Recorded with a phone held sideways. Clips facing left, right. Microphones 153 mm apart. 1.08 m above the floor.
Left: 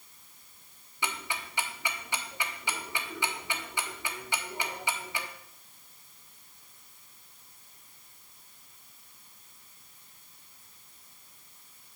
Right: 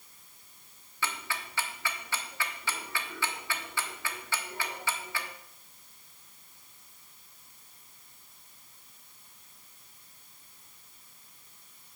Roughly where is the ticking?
Centre.